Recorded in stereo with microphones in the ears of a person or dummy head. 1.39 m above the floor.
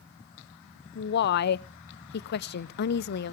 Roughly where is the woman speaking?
Left.